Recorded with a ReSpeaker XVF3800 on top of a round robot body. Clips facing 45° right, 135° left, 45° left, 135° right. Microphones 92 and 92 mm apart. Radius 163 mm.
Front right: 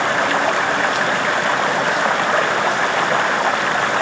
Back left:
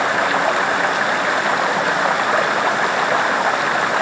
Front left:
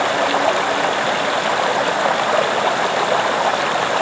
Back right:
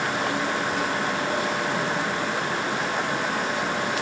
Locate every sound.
0.0 s running water: 50° left